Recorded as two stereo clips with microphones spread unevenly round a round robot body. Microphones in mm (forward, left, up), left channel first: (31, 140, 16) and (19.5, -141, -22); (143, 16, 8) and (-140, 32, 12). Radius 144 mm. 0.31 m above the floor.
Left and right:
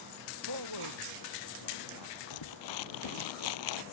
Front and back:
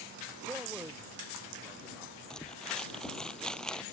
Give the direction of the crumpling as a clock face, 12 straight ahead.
9 o'clock.